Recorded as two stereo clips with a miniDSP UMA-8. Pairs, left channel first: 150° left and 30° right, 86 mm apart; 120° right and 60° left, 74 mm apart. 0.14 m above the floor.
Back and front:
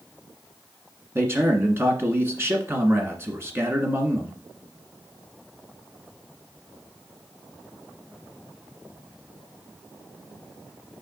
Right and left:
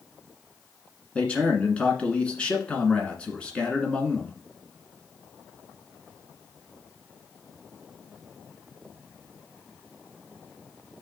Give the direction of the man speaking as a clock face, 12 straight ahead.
2 o'clock.